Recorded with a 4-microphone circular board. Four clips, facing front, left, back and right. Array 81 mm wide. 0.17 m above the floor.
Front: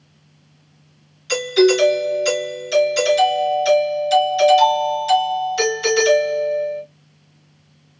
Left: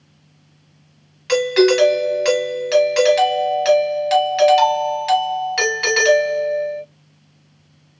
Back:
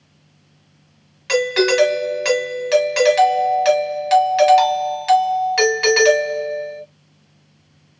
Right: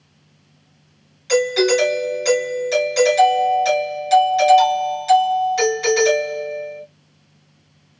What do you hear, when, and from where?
1.3 s a doorbell: 145° left, 3 m